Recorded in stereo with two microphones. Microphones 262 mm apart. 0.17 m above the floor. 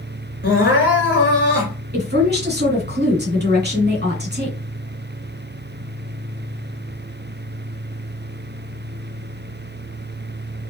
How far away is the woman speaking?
About 1.6 m.